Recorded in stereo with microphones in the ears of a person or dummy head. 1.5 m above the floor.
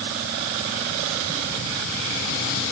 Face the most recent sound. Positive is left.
No sound to turn to.